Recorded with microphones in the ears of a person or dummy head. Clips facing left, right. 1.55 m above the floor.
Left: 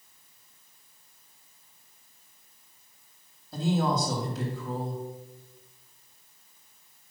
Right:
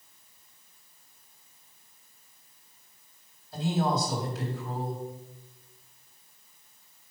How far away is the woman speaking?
About 3.5 m.